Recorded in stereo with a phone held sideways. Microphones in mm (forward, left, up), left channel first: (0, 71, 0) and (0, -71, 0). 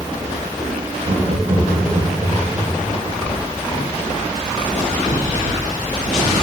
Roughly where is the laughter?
Right.